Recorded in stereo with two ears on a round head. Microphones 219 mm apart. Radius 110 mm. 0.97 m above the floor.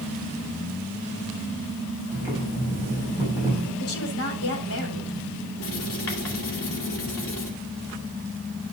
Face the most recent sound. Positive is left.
turn(degrees=55)  # may be behind; listen again after turning